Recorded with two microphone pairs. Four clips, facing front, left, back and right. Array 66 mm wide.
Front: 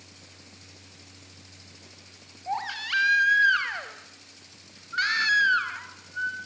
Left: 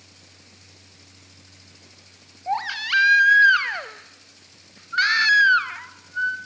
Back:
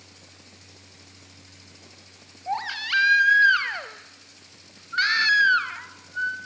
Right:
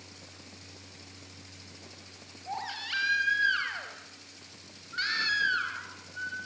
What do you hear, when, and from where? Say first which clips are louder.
2.5 s a baby crying: left 12 dB, back 3 dB; 110° left, 1.0 m